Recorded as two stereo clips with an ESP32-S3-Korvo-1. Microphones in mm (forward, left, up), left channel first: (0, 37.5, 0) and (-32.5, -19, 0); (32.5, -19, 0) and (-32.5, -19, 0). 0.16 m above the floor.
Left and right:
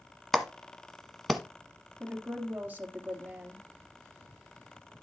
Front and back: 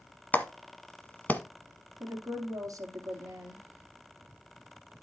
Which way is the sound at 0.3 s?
25° right.